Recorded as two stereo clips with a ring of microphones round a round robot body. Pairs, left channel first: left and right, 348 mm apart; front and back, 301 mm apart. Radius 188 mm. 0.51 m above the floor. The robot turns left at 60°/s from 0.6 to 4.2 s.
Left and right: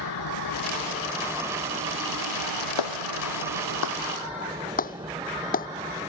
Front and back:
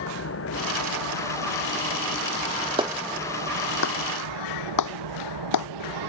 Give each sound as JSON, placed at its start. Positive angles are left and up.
{"t": 0.0, "sound": "an engine running", "azimuth_deg": 45}
{"t": 2.8, "sound": "a clap", "azimuth_deg": 110}